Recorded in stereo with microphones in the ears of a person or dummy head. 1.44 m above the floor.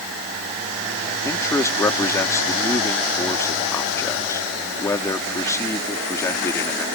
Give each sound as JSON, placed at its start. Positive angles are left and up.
{"t": 1.2, "sound": "a man speaking", "side_deg": 20}